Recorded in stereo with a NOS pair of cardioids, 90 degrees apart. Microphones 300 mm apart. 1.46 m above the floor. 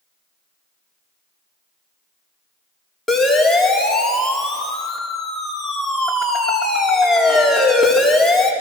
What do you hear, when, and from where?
3.1 s a siren: straight ahead, 4.5 m